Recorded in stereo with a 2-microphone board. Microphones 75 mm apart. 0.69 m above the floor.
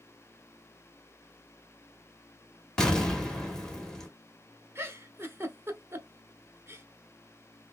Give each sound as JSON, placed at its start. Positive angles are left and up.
{"t": 2.8, "sound": "an explosion", "side_deg": 10, "distance_m": 1.5}
{"t": 4.8, "sound": "a giggle", "side_deg": -30, "distance_m": 0.9}